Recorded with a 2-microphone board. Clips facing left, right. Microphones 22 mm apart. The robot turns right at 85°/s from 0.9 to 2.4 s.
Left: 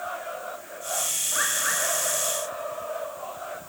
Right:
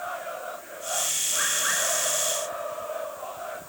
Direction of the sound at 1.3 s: 160° left.